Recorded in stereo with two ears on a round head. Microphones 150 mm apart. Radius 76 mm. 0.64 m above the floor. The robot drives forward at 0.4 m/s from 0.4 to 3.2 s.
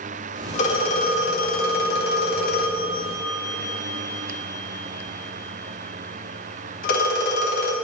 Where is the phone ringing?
45° left (ahead or behind), 1.2 m; by 7.8 s 60° left (ahead or behind), 1.0 m.